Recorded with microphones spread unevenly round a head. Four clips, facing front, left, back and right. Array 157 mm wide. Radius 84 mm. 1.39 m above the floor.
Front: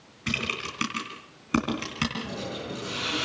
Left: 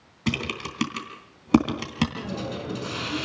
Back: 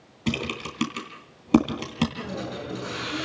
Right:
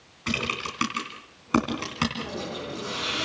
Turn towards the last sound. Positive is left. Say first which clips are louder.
# left 1 dB, back 1 dB
turn(degrees=100)